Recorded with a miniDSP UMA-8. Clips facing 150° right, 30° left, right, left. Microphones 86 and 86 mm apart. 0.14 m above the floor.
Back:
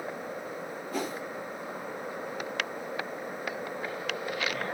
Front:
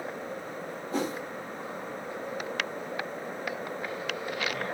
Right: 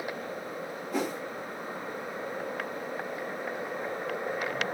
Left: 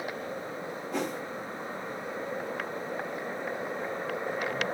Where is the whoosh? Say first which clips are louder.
Front 3 dB, right 1 dB; 5° right, 0.9 m.